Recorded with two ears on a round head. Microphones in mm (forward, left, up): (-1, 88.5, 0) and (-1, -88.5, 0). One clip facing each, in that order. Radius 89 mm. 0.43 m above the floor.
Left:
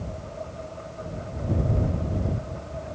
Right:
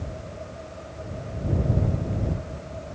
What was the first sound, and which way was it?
Only background noise.